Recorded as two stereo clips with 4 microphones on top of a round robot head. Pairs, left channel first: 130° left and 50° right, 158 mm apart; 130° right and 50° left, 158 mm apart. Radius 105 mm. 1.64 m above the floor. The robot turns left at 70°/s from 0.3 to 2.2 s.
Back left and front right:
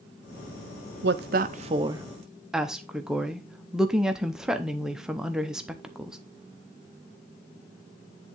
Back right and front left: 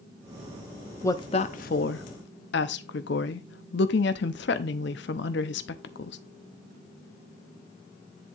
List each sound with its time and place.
1.0 s a woman speaking: 55° right, 0.6 m; by 6.2 s 135° right, 0.6 m